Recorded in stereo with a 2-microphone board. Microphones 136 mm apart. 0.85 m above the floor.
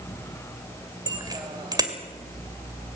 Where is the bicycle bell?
30° right (ahead or behind), 2.5 m.